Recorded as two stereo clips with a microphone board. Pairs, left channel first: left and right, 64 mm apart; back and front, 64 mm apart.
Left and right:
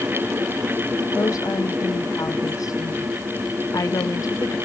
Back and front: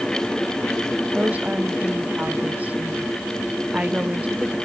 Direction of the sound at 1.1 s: 65° left.